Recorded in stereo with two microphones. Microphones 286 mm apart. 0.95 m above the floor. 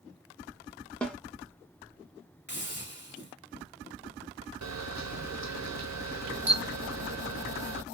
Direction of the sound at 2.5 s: 40° left (ahead or behind).